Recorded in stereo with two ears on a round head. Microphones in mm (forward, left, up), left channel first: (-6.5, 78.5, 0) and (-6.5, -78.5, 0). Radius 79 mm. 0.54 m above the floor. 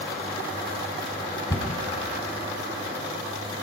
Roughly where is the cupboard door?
Left.